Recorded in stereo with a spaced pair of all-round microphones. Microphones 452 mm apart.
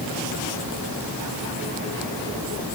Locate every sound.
Only background noise.